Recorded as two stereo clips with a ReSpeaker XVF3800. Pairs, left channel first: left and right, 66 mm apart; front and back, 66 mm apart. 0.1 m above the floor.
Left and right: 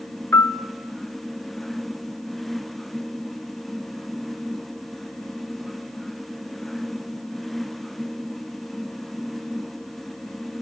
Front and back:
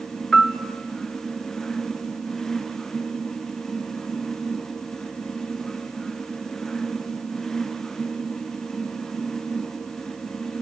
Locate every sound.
0.3 s a piano: 80° left, 0.5 m